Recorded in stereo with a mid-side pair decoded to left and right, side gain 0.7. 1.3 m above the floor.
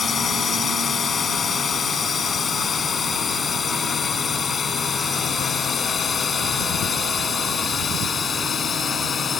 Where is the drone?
25° left.